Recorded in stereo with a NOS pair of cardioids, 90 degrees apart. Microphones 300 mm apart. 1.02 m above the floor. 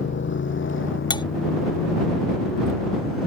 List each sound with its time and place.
0.0 s a motorcycle: 40° left; by 3.3 s 50° left
1.1 s cutlery clinking: 15° left